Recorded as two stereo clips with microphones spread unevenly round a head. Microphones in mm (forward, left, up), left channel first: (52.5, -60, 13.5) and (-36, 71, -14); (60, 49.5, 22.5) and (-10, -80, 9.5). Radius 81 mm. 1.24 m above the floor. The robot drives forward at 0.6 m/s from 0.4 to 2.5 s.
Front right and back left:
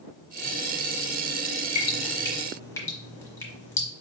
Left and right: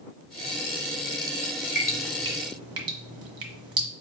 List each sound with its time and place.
1.8 s dripping: 45° right, 1.2 m; by 3.9 s 85° right, 1.1 m